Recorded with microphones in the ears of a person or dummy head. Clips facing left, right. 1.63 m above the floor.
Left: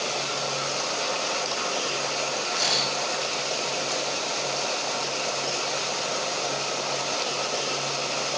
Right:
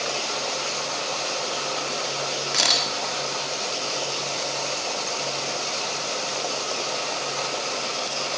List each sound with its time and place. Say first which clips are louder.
2.5 s a camera shutter: right 1 dB; 85° right, 4 m